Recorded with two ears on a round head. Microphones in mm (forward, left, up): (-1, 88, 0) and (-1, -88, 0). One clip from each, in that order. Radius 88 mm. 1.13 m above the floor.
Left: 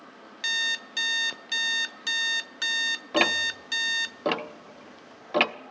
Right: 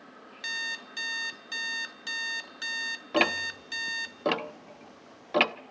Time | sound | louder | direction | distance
0.4 | an alarm clock | left 7 dB | 25° left (ahead or behind) | 0.7 m
3.1 | ticking | left 2 dB | centre (ahead or behind) | 0.6 m